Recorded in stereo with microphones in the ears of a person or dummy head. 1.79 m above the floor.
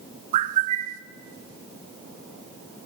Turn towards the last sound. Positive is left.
turn(degrees=-45)  # may be behind; listen again after turning